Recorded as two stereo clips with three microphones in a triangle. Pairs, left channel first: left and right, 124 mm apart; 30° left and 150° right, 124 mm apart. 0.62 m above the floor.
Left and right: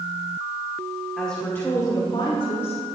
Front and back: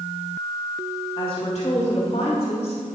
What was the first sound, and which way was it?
A woman speaking, 5° left.